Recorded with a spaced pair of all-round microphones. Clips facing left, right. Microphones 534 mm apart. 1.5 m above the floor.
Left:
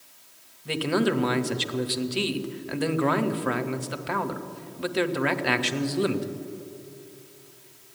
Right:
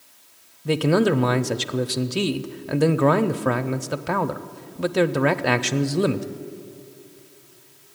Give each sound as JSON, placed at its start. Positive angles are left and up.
{"t": 0.7, "sound": "a man speaking", "side_deg": -70, "distance_m": 0.6}